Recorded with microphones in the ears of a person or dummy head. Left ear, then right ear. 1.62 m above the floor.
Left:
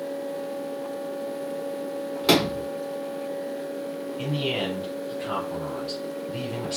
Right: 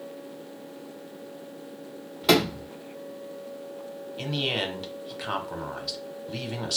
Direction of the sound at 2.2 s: 5° left (ahead or behind).